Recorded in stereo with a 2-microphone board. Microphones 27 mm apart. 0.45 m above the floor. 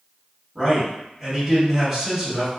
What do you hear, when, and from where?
0.6 s a man speaking: 5° left (ahead or behind), 1.4 m